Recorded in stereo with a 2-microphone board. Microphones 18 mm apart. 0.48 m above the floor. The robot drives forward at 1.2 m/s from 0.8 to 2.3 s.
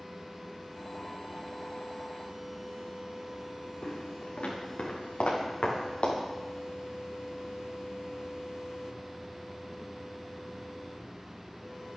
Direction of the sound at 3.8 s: 85° left.